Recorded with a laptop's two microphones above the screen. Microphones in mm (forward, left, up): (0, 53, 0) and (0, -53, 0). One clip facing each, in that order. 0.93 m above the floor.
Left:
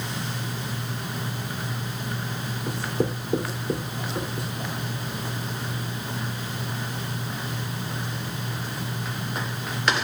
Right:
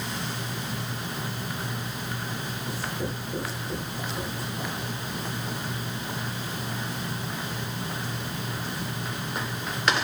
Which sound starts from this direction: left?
Writing, at 2.7 s.